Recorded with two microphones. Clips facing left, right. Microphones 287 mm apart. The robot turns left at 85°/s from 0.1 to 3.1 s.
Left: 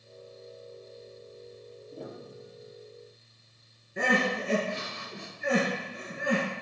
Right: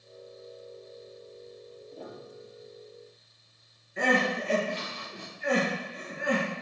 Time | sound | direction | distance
1.9 | a piano | 15° left (ahead or behind) | 1.5 m
4.0 | crying | 50° left (ahead or behind) | 4 m